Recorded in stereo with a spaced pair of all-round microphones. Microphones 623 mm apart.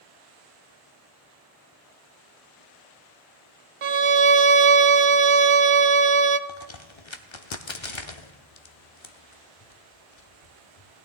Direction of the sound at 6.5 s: 50° left (ahead or behind).